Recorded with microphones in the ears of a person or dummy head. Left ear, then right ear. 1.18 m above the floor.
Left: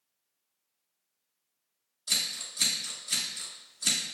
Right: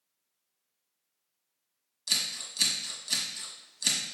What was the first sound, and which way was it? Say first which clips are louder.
Scissors: even; 15° right (ahead or behind).